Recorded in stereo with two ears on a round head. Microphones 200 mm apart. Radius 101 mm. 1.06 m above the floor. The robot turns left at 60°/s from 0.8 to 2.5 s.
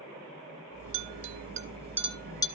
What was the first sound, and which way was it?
A clink, 65° right (ahead or behind).